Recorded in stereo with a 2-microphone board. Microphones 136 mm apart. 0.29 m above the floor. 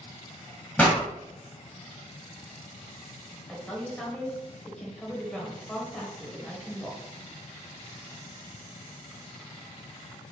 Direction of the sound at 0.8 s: 10° left (ahead or behind).